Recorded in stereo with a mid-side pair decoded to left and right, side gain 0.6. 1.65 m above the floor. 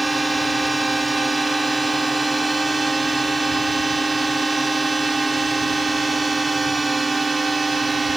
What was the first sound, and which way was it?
A drone, 10° right.